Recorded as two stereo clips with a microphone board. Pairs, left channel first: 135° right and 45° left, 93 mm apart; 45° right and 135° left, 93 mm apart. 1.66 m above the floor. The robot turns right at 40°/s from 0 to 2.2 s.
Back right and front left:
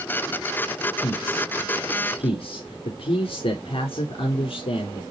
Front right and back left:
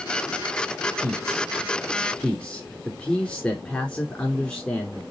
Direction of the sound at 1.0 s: 165° right.